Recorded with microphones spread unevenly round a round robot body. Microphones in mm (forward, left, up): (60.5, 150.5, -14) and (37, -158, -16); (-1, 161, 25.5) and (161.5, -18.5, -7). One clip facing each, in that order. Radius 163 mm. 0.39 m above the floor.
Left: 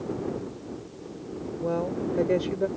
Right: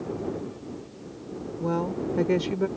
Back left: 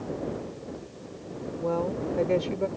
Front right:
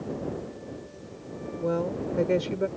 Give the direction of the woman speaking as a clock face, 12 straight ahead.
2 o'clock.